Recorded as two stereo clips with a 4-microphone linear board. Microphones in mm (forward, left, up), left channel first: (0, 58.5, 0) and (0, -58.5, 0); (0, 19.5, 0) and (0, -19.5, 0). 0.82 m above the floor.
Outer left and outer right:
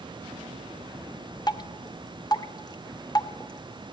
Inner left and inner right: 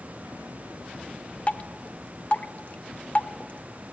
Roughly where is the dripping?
Left.